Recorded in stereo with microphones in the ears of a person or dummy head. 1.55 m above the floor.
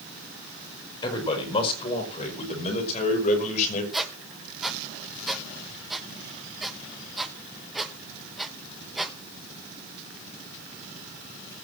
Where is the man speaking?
30° left (ahead or behind), 4.5 m; by 3.8 s 45° left (ahead or behind), 5.5 m.